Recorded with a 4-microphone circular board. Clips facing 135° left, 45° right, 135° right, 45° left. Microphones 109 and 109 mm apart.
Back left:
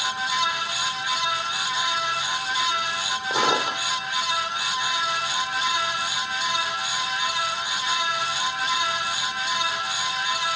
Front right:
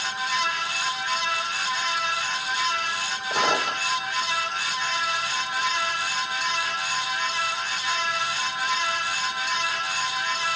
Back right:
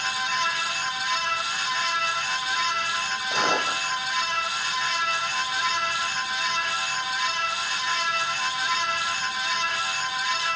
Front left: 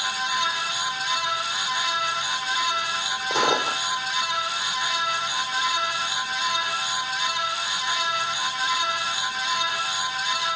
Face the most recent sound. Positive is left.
turn(degrees=75)